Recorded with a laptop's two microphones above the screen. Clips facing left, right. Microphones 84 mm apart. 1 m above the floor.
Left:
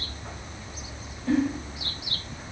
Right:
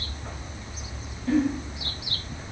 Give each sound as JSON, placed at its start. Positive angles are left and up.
{"t": 1.3, "sound": "a giggle", "side_deg": 15, "distance_m": 1.2}